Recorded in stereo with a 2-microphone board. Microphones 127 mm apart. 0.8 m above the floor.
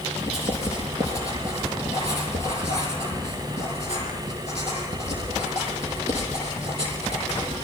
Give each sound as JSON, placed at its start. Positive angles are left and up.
{"t": 0.2, "sound": "writing", "side_deg": -55, "distance_m": 6.0}